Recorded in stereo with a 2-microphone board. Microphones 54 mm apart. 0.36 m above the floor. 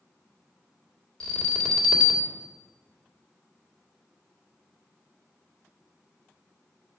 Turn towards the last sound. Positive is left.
turn(degrees=15)  # may be behind; listen again after turning